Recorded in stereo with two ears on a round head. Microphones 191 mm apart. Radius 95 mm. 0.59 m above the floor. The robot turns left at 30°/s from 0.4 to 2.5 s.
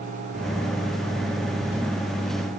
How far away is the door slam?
I don't hear a door slam.